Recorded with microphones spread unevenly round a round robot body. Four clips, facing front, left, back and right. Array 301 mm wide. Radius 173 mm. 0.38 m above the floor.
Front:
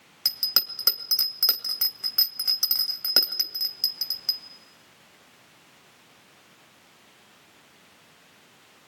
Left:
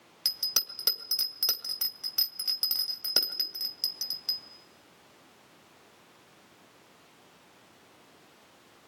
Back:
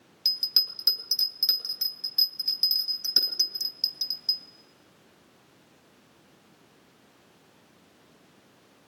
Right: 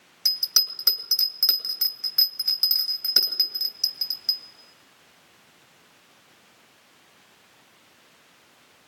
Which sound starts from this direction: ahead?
A bell, at 0.2 s.